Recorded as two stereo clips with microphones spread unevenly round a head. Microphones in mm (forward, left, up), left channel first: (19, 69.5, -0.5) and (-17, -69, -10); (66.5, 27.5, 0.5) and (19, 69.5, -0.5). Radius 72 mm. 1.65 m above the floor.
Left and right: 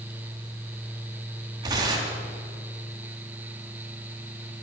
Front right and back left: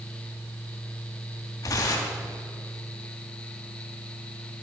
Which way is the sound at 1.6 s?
40° right.